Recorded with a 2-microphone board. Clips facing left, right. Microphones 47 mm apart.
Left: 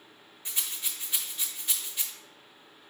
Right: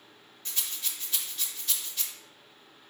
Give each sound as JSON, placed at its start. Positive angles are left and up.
{"t": 0.5, "sound": "a rattle", "side_deg": 15, "distance_m": 0.5}